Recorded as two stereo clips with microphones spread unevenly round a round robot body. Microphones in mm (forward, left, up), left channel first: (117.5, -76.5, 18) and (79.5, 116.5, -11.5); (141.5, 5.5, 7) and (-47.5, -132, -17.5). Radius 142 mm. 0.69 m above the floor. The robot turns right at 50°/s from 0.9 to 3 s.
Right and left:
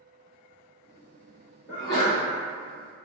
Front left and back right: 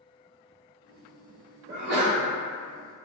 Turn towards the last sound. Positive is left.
turn(degrees=-95)